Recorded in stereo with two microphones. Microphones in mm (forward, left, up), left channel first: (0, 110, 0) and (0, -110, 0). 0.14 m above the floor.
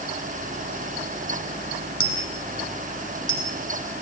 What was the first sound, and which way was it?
A dropped coin, 75° left (ahead or behind).